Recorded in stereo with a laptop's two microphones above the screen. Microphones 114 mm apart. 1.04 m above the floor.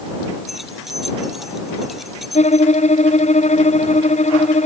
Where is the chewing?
No chewing in this recording.